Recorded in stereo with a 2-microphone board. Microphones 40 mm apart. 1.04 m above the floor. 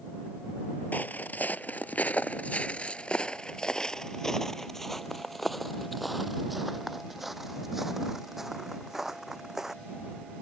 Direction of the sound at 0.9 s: 45° left (ahead or behind).